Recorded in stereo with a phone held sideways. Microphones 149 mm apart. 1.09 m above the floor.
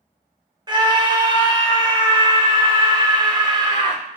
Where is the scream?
30° right (ahead or behind), 1.1 m.